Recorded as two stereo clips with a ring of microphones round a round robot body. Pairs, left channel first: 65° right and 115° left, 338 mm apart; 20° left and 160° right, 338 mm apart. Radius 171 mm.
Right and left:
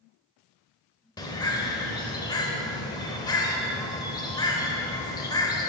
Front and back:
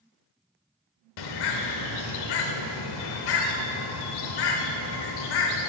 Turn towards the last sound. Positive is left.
turn(degrees=10)